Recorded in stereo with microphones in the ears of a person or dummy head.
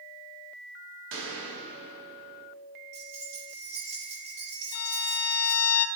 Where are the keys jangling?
40° right (ahead or behind), 2 m.